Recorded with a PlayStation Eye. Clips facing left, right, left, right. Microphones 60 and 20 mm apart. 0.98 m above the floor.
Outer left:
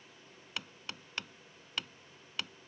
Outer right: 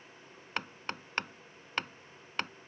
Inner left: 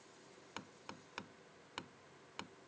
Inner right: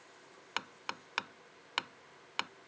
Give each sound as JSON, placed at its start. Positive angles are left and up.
{"t": 0.6, "sound": "hammering", "side_deg": -45}